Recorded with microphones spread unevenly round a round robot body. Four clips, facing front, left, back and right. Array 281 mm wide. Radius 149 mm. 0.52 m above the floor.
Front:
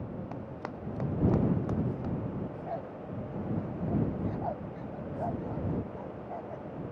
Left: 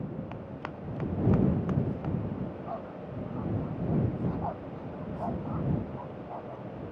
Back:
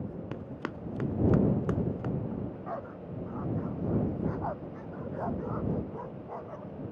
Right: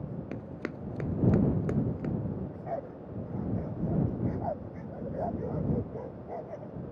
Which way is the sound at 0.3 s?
135° right.